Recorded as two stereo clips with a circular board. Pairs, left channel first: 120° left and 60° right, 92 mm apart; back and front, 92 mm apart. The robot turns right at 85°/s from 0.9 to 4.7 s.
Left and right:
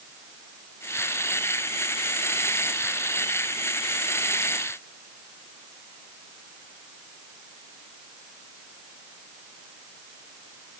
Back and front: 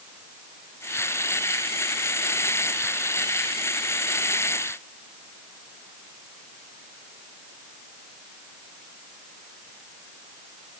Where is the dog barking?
No dog barking in this recording.